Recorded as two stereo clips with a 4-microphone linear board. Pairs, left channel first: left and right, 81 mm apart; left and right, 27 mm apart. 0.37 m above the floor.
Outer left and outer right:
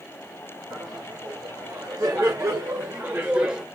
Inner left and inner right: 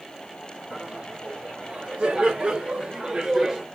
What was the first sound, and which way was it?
Laughter, 50° right (ahead or behind).